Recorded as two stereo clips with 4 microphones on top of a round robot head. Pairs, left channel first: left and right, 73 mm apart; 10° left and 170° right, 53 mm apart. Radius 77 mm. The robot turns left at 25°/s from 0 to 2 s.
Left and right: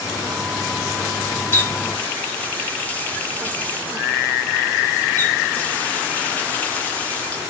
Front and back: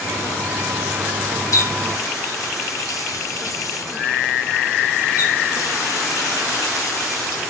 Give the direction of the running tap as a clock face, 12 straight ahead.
11 o'clock.